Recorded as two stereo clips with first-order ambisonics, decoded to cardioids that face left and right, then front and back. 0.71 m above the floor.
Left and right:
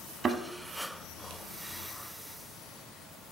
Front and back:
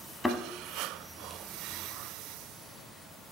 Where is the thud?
75° right, 0.6 m.